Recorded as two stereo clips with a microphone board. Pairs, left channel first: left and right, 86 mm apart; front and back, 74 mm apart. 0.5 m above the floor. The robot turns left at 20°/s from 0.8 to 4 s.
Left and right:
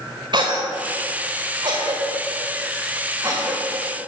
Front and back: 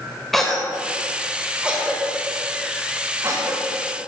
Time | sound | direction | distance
0.3 | a cough | 85° right | 2 m